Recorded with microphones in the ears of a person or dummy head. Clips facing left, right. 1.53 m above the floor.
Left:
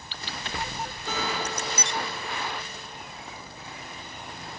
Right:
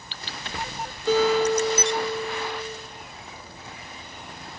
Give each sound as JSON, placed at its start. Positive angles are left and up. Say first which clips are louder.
{"t": 1.1, "sound": "a guitar", "louder": "right 13 dB", "side_deg": -60, "distance_m": 3.5}